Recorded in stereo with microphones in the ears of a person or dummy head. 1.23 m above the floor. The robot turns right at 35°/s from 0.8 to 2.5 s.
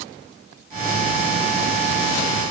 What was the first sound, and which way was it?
Only background noise.